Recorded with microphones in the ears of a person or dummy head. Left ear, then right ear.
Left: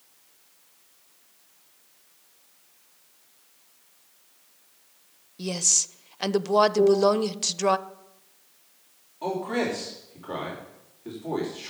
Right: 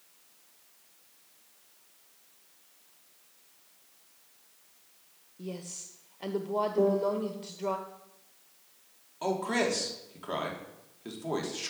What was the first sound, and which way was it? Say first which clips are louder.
A woman speaking: left 17 dB; 60° left (ahead or behind).